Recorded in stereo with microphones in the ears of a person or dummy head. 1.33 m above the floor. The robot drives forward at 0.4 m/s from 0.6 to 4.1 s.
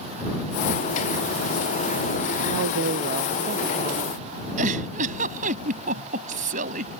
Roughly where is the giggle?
Right.